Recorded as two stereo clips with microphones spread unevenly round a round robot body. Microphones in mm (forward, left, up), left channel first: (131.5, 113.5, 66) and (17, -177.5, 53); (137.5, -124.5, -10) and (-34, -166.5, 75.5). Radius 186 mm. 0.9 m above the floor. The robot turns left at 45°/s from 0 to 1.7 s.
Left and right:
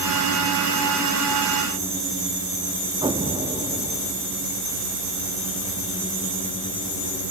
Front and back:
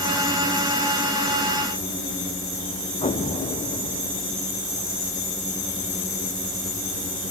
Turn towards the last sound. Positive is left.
turn(degrees=-35)